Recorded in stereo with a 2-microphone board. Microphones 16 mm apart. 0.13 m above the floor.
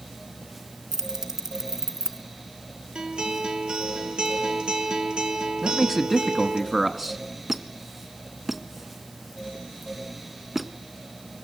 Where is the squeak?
15° right (ahead or behind), 0.8 m.